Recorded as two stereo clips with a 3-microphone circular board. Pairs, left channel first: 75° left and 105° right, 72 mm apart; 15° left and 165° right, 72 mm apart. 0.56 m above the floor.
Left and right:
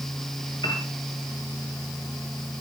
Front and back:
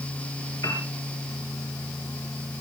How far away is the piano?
About 5.5 m.